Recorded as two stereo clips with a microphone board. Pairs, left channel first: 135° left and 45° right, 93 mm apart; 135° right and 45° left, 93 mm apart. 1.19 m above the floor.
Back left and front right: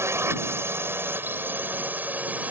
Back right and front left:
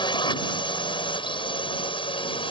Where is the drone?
105° right; by 2.5 s 115° right.